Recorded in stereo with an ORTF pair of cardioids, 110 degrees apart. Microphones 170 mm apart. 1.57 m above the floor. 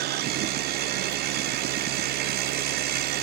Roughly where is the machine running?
Right.